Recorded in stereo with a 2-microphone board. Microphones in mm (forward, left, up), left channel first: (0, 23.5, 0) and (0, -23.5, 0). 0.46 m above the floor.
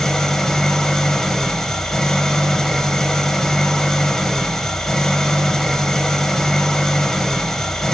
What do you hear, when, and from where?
0.0 s an engine running: 10° left (ahead or behind), 0.9 m